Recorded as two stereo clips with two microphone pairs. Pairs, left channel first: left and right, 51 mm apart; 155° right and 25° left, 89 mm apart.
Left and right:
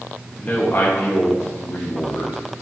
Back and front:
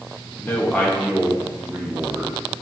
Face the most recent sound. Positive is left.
turn(degrees=80)